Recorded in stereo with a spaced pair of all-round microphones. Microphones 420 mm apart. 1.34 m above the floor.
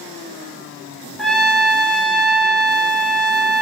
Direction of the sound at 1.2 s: Centre (ahead or behind).